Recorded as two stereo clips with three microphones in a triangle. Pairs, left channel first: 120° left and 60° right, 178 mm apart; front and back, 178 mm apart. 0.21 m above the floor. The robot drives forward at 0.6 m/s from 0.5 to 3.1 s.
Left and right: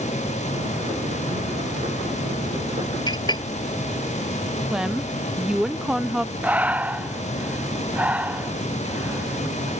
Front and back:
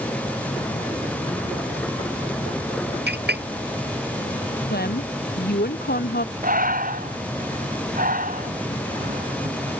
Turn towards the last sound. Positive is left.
turn(degrees=-140)